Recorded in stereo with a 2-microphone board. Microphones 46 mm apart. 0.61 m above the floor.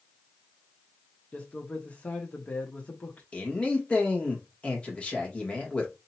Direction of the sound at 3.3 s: 25° left (ahead or behind).